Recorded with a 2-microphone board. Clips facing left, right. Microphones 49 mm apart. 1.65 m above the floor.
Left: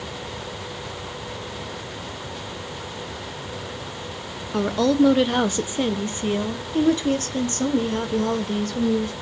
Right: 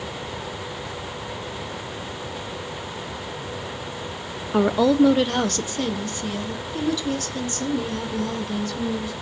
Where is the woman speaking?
20° right (ahead or behind), 0.8 m; by 9.1 s 50° left (ahead or behind), 3 m.